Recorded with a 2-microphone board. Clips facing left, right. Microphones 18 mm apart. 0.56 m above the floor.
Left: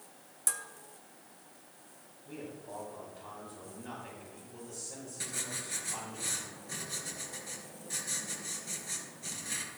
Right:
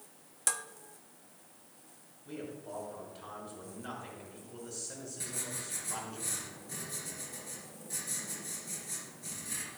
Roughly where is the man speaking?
Right.